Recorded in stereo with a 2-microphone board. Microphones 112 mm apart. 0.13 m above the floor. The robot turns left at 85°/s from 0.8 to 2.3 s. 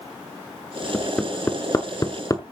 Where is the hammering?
Centre (ahead or behind), 1.1 m; by 2.4 s 30° left (ahead or behind), 1.1 m.